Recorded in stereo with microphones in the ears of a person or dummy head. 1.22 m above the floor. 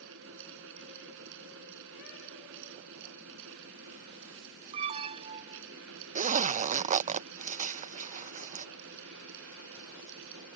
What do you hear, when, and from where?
0.0 s a fan: 70° right (ahead or behind)
4.7 s an alarm: 30° right (ahead or behind)
6.2 s a zipper: 35° right (ahead or behind)